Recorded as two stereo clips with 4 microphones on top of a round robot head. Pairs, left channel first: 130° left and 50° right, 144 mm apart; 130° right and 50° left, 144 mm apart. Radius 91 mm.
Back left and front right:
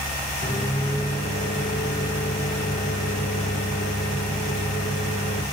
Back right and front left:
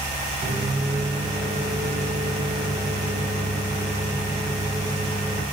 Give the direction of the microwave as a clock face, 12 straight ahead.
9 o'clock.